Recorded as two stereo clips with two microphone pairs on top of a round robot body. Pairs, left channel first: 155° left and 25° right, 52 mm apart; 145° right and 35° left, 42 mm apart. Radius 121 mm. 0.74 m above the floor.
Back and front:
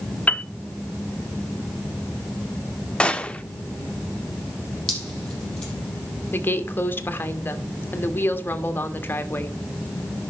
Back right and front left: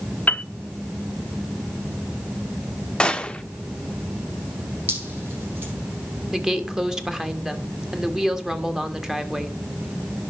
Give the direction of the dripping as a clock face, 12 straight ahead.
9 o'clock.